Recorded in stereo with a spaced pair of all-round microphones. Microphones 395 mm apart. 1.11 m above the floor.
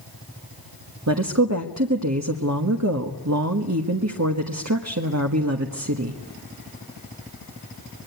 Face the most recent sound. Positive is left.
turn(degrees=-40)  # may be behind; listen again after turning